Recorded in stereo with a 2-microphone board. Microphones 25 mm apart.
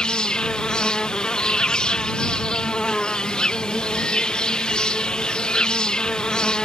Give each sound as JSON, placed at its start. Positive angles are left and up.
{"t": 0.0, "sound": "an insect", "side_deg": 40}